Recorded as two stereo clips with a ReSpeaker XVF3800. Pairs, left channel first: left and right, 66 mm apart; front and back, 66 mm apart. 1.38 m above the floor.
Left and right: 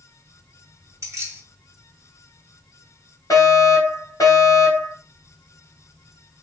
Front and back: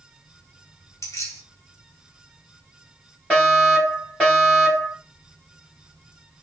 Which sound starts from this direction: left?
A fire alarm, at 3.3 s.